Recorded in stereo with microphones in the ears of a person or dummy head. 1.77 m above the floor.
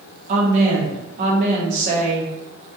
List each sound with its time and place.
0.3 s a woman speaking: 40° right (ahead or behind), 0.9 m